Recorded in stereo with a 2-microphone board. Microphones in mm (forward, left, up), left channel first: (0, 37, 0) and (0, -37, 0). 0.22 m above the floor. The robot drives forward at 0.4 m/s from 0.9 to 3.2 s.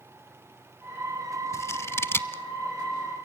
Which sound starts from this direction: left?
Scissors, at 1.5 s.